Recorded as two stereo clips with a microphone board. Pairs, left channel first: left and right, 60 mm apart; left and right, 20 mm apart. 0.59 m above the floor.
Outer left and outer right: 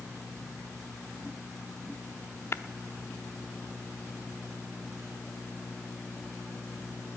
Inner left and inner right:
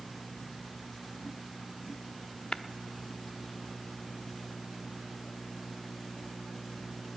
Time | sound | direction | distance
2.5 | tapping | 45° left (ahead or behind) | 0.6 m